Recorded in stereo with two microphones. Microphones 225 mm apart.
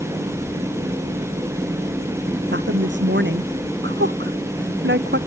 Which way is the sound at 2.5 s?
55° right (ahead or behind).